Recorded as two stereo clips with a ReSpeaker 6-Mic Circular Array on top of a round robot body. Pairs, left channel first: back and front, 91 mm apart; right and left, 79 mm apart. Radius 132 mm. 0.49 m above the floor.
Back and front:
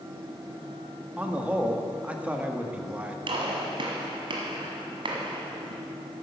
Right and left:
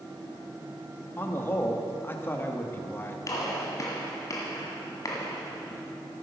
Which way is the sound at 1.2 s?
60° right.